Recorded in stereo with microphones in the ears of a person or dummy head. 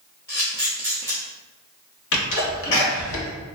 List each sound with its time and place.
0.3 s a camera shutter: 15° left (ahead or behind), 0.6 m
2.1 s a sneeze: 65° left (ahead or behind), 1.2 m